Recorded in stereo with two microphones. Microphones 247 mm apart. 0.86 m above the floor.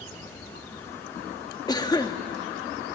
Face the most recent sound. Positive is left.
turn(degrees=15)  # may be behind; listen again after turning